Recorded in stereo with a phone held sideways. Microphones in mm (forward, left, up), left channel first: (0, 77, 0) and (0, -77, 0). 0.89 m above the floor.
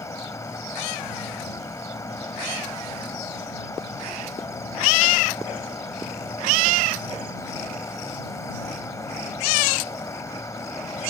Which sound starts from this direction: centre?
An insect, at 0.0 s.